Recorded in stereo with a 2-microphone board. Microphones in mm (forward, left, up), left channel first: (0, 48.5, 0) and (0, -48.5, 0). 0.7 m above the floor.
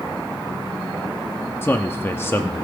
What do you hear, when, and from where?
1.6 s a man speaking: 25° left (ahead or behind), 0.9 m